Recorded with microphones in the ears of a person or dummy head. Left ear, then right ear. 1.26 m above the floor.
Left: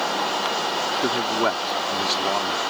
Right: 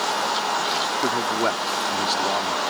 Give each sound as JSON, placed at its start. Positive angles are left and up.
{"t": 1.0, "sound": "a man speaking", "side_deg": 15}